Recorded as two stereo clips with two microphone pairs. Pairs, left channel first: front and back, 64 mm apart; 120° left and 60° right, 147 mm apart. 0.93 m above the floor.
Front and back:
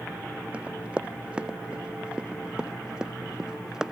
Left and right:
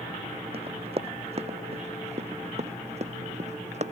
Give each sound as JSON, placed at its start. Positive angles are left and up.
{"t": 0.5, "sound": "running footsteps", "azimuth_deg": -105}